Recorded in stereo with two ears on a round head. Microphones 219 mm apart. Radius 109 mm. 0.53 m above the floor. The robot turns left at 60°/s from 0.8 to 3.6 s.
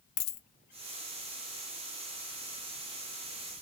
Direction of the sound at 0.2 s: 65° left (ahead or behind).